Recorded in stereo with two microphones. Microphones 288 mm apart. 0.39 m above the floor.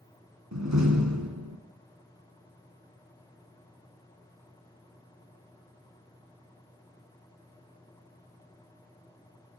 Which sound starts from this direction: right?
A door slam, at 0.5 s.